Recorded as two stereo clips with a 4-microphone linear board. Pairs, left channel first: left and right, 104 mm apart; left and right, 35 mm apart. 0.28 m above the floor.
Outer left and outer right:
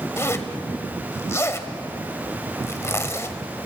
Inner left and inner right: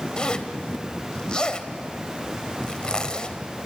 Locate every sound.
0.2 s a zipper: 25° left (ahead or behind), 1.2 m